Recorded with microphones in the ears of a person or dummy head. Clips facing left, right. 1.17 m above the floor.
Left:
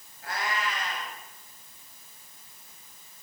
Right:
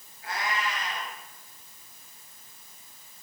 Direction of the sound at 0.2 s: 50° left (ahead or behind).